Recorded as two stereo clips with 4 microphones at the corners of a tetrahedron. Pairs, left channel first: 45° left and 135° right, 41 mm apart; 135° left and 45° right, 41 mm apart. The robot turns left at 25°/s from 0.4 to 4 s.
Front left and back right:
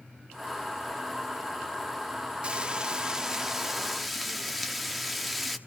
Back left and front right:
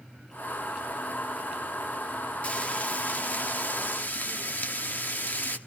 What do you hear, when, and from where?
2.4 s frying: 175° left, 0.7 m; by 5.6 s 135° left, 0.7 m